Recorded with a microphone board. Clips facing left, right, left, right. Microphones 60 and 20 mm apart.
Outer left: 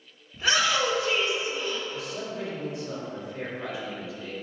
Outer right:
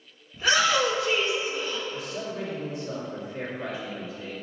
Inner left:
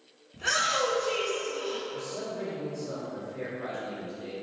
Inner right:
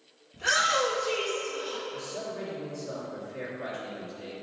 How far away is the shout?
About 1.1 m.